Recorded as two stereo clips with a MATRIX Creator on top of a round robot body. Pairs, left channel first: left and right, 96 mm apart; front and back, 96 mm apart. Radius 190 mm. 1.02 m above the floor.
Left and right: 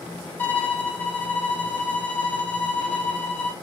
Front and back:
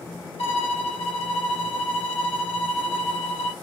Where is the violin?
20° left, 1.3 m.